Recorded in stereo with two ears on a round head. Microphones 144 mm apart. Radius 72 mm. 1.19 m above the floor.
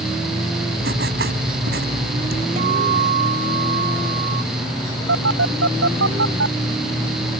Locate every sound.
0.8 s writing: 60° right (ahead or behind)
2.6 s a guitar: 55° right (ahead or behind)
5.1 s a phone buzzing: 80° right